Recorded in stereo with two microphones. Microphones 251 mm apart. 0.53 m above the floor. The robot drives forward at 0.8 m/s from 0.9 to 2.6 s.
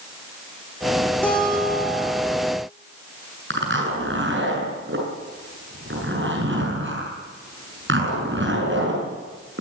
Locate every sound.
1.2 s a guitar: 5° left (ahead or behind), 8.5 m
3.5 s a zipper: 50° right (ahead or behind), 7 m